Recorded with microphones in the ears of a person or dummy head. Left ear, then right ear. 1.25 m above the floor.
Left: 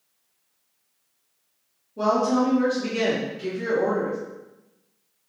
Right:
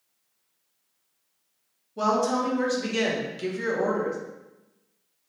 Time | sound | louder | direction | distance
2.0 | a woman speaking | left 2 dB | 40° right (ahead or behind) | 0.8 m